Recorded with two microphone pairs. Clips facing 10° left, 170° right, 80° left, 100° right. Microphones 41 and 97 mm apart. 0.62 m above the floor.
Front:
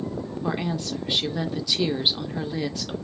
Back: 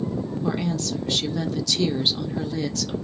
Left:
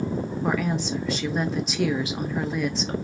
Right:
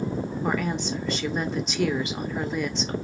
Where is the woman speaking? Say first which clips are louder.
Back 1 dB, left 2 dB; 10° right, 0.7 m.